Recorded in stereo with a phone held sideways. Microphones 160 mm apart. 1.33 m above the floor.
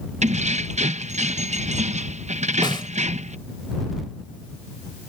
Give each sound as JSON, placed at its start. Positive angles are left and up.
{"t": 0.2, "sound": "keys jangling", "side_deg": -45}
{"t": 2.6, "sound": "a snare drum", "side_deg": 30}